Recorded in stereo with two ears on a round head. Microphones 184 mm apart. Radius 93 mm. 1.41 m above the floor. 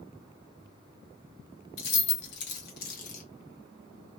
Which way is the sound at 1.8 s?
65° left (ahead or behind).